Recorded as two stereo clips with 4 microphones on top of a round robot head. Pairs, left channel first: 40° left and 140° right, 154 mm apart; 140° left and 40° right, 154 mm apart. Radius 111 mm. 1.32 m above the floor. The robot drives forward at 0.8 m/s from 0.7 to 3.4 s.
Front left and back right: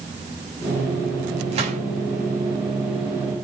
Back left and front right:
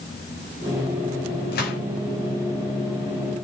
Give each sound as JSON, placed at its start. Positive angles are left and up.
{"t": 1.5, "sound": "a gunshot", "azimuth_deg": 165, "distance_m": 6.0}